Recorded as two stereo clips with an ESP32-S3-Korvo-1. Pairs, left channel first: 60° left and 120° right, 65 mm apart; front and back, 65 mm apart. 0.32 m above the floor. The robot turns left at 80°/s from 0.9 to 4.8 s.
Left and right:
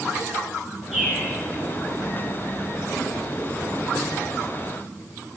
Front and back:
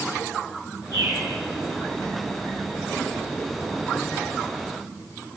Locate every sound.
0.9 s a bird: 160° left, 3.5 m; by 1.2 s 140° left, 3.5 m